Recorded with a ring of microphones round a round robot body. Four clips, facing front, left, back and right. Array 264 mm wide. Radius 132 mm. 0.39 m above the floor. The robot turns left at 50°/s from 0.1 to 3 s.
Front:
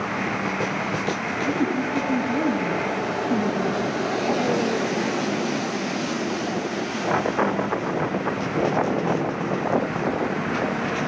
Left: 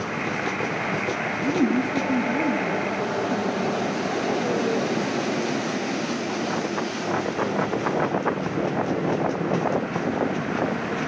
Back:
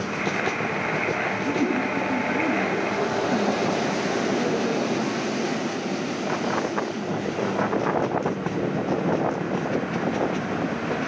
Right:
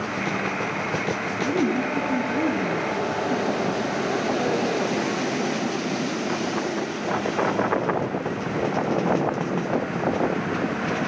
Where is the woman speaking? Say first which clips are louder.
Left 1 dB, front 1 dB; 95° left, 6.5 m; by 8.3 s 15° left, 6.5 m.